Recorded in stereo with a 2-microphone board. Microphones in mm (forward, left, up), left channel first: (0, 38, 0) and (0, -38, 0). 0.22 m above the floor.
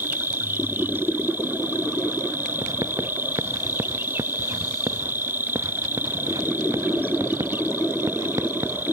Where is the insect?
25° right (ahead or behind).